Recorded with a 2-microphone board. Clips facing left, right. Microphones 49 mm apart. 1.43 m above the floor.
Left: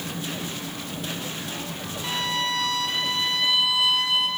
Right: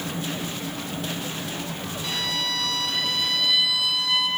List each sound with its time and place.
2.0 s a violin: 30° left (ahead or behind), 1.6 m